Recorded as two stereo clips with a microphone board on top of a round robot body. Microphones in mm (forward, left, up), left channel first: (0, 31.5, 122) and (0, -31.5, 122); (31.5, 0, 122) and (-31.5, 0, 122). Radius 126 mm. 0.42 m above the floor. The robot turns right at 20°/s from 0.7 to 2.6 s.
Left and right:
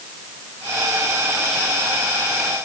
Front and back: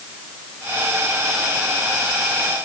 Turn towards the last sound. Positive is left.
No sound to turn to.